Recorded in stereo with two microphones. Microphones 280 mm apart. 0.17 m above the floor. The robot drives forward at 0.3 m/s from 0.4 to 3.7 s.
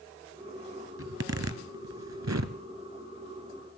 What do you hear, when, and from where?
1.0 s a zipper: 55° right (ahead or behind), 0.8 m; by 2.6 s 70° right (ahead or behind), 0.7 m